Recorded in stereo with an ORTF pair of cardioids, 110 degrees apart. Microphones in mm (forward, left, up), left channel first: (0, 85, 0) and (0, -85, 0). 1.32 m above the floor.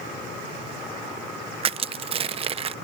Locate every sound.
1.6 s crushing: 35° right